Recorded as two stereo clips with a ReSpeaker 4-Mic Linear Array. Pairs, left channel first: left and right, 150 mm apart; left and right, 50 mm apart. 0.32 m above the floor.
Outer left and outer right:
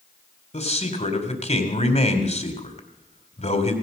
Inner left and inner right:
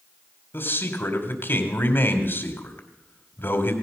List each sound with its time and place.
0.5 s a man speaking: 50° left (ahead or behind), 2.5 m